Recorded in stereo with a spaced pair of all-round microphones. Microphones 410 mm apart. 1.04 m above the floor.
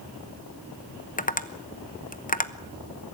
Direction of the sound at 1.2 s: 20° left (ahead or behind).